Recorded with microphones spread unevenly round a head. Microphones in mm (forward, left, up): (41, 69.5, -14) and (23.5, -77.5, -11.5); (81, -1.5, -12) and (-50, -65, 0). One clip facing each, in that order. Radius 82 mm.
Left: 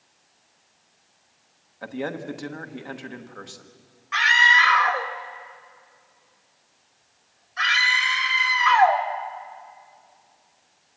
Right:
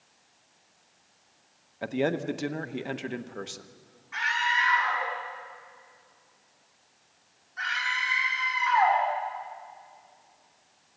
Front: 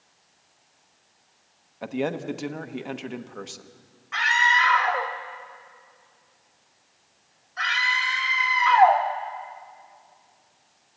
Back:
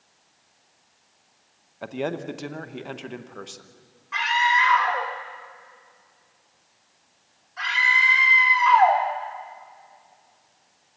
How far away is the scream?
About 2 m.